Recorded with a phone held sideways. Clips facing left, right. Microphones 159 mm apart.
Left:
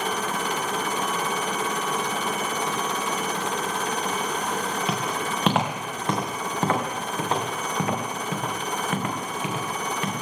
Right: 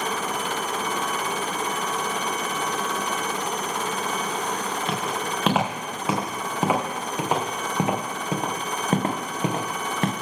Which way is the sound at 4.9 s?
5° left (ahead or behind).